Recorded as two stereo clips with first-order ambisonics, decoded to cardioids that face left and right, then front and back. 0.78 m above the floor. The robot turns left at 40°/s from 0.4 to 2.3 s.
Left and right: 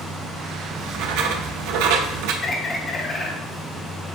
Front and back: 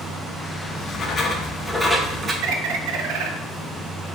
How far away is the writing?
About 0.6 m.